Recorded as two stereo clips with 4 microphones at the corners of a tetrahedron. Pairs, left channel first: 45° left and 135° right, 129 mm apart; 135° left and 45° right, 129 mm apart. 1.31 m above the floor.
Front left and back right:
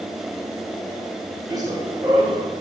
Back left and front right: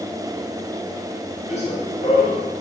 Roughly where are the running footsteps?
Behind.